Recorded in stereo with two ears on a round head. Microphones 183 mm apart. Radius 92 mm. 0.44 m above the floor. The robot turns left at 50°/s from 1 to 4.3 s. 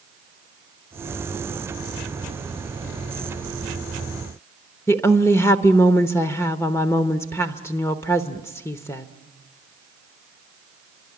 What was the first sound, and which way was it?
A woman speaking, 15° left (ahead or behind).